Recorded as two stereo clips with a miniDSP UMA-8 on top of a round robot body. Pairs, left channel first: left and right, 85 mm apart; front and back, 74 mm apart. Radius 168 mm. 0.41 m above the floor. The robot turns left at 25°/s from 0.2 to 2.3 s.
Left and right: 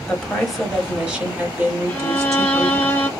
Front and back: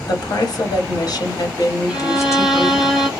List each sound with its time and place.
0.1 s a woman speaking: 10° left, 1.8 m; by 2.9 s 45° right, 1.8 m
1.9 s a violin: 110° left, 1.3 m; by 3.1 s 100° left, 1.3 m